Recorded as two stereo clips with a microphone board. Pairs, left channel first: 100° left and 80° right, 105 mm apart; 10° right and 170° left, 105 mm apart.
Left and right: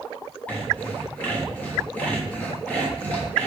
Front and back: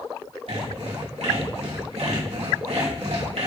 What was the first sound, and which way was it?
Sawing, 175° left.